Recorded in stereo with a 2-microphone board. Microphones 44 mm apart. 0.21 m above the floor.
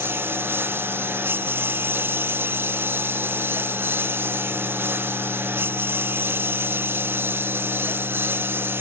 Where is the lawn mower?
55° right (ahead or behind).